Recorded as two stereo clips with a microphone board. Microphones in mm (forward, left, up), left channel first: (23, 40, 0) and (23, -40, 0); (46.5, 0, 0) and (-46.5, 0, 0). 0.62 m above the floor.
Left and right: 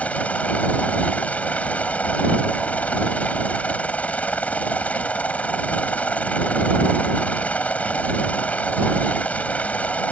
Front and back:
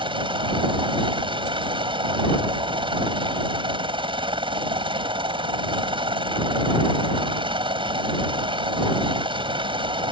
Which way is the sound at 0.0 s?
160° left.